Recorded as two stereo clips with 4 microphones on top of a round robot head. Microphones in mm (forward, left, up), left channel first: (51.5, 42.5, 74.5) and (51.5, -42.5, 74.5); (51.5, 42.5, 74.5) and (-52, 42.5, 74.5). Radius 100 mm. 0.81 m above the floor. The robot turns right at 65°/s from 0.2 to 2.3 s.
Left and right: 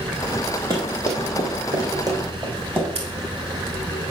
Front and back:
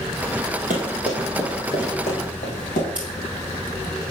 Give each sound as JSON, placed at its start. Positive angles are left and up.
{"t": 0.7, "sound": "running footsteps", "azimuth_deg": -160, "distance_m": 2.0}
{"t": 3.0, "sound": "scissors", "azimuth_deg": -100, "distance_m": 2.0}